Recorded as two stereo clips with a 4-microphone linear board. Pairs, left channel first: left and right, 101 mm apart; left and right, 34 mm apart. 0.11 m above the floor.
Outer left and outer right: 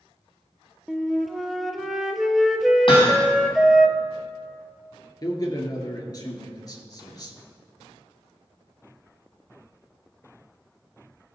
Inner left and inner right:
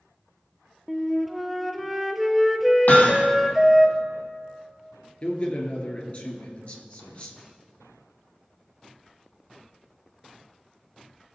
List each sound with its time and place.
0.9 s a flute: centre (ahead or behind), 0.7 m
2.9 s hammering: 55° left (ahead or behind), 3 m
5.2 s a man speaking: 40° left (ahead or behind), 1.8 m